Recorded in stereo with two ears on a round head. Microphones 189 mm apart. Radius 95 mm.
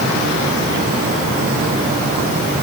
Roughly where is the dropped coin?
I don't hear a dropped coin.